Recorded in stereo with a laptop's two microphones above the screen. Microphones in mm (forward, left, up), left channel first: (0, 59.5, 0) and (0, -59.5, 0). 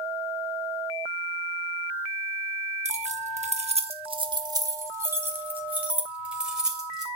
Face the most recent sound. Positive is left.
turn(degrees=-5)  # may be behind; listen again after turning